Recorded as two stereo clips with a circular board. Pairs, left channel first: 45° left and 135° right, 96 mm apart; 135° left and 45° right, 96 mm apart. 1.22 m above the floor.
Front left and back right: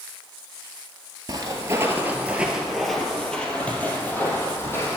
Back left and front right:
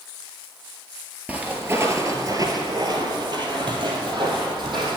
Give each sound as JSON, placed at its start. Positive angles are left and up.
{"t": 1.3, "sound": "footsteps", "azimuth_deg": -110, "distance_m": 1.6}